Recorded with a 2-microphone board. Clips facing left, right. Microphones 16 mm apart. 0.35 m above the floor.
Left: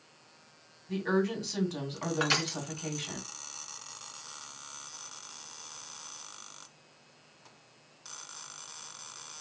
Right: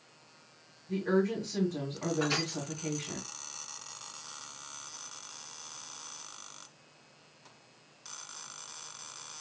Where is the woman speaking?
45° left (ahead or behind), 1.8 m.